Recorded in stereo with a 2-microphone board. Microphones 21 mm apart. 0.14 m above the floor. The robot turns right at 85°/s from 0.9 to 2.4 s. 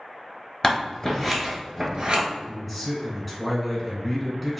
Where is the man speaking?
Centre (ahead or behind), 1.1 m.